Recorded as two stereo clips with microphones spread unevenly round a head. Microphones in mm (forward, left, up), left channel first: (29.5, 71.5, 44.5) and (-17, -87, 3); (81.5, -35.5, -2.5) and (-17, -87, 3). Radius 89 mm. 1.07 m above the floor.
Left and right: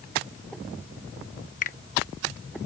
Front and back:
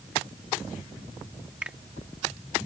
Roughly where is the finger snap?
Behind left.